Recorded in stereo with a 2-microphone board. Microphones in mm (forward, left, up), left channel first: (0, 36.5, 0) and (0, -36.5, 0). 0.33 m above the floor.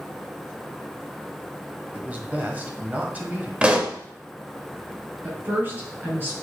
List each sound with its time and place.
1.9 s a man speaking: 25° right (ahead or behind), 1.4 m
3.6 s a pop: 15° right (ahead or behind), 0.8 m
5.2 s a woman speaking: 30° right (ahead or behind), 3.5 m